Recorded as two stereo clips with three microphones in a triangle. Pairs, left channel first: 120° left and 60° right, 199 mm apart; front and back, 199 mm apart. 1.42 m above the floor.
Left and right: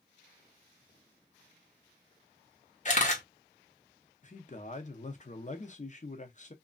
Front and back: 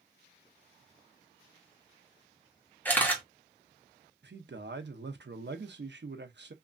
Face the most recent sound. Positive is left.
turn(degrees=165)